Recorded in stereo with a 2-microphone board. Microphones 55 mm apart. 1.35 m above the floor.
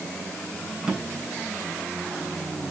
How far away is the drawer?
About 3 m.